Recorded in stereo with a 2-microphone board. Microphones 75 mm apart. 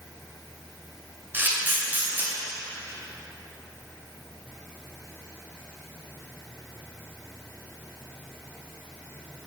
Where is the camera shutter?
25° right (ahead or behind), 2 m.